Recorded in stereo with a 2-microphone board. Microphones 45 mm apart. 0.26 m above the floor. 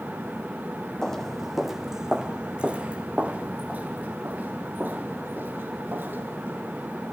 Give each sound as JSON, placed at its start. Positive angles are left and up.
{"t": 1.0, "sound": "footsteps", "side_deg": 15, "distance_m": 1.0}